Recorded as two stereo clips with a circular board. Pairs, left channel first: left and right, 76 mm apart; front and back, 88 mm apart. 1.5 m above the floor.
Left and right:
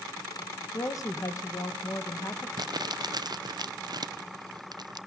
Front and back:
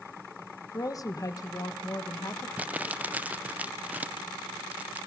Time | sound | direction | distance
0.7 | a woman speaking | 50° left | 1.5 m
2.6 | crumpling | 110° right | 0.6 m